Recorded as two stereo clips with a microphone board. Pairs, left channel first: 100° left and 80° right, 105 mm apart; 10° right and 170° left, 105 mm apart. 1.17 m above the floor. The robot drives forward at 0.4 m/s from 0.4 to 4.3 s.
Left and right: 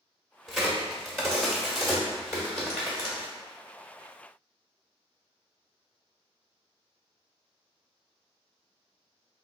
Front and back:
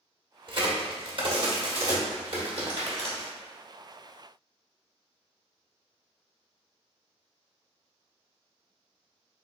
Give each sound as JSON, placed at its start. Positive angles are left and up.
{"t": 0.5, "sound": "a crack", "azimuth_deg": -170, "distance_m": 1.0}